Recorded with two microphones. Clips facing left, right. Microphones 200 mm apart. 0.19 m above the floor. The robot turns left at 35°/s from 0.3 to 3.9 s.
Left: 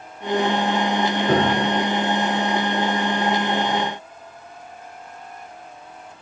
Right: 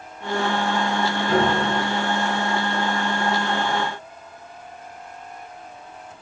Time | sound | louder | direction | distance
1.3 | a piano | even | 60° left (ahead or behind) | 5 m